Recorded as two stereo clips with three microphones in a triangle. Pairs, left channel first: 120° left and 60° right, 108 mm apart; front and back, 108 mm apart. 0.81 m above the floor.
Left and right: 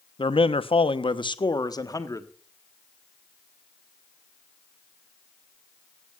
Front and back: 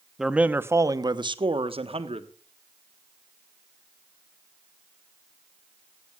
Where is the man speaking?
95° left, 0.9 m; by 2.3 s 175° left, 1.4 m.